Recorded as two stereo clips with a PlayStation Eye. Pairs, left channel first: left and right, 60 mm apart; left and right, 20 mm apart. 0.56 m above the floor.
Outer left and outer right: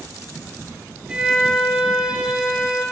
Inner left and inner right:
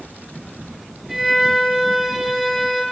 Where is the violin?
5° right (ahead or behind), 3 m.